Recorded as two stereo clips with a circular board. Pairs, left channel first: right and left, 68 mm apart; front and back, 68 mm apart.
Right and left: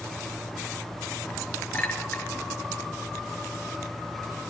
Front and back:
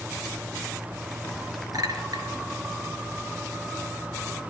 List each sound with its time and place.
1.7 s a clink: 155° right, 3.5 m